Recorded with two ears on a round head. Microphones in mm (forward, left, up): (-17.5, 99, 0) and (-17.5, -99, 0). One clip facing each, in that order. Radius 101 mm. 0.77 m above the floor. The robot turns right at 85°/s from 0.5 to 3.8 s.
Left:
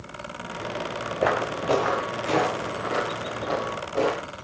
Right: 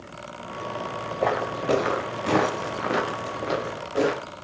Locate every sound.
1.2 s footsteps: 10° left (ahead or behind), 3 m; by 4.3 s 15° right (ahead or behind), 4 m